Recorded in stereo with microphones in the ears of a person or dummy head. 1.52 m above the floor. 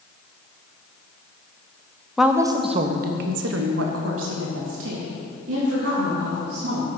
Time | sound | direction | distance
2.2 | a woman speaking | 5° right (ahead or behind) | 0.7 m